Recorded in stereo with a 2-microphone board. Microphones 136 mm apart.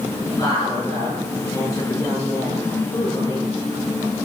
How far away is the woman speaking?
About 7 m.